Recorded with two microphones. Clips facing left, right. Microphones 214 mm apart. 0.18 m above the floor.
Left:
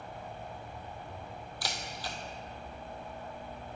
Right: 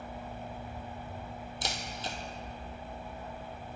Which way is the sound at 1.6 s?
20° right (ahead or behind).